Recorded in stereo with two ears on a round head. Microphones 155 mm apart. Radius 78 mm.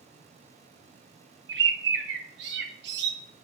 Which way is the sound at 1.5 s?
70° right (ahead or behind).